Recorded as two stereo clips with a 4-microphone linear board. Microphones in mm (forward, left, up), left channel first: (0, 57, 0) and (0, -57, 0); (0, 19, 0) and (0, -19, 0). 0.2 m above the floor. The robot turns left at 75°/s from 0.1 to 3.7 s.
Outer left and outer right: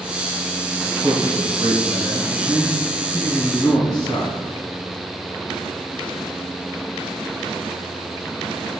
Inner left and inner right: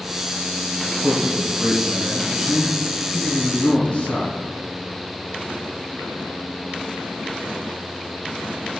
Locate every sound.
1.0 s a man speaking: 75° right, 1.2 m; by 4.4 s 85° left, 1.2 m